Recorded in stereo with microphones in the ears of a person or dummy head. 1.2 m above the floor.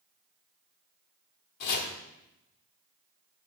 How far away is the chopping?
About 1.8 m.